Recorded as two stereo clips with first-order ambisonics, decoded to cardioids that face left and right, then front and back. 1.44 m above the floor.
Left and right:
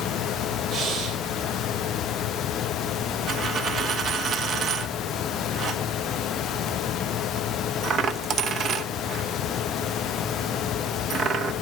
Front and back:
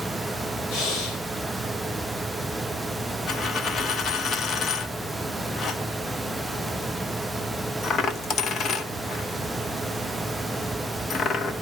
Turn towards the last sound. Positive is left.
turn(degrees=-50)